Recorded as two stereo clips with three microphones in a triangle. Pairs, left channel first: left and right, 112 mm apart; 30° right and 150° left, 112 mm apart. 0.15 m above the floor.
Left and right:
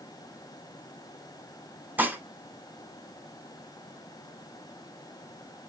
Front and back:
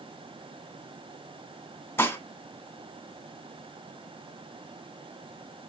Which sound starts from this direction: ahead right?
Dishes clattering, at 2.0 s.